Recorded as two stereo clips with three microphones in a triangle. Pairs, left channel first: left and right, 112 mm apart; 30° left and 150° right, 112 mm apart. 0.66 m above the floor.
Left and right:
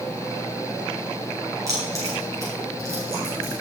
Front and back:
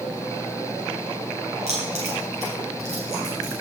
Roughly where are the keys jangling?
Behind right.